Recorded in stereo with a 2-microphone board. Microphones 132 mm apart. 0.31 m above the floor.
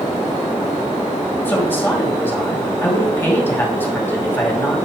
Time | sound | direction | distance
1.4 | a woman speaking | 15° left (ahead or behind) | 2 m